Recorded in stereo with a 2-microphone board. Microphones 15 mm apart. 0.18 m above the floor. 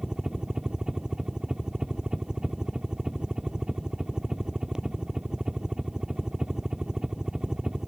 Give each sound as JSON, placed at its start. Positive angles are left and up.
{"t": 0.0, "sound": "a helicopter", "side_deg": -55}